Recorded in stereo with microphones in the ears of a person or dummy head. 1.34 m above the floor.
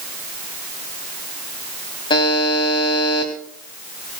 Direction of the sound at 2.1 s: 20° left (ahead or behind).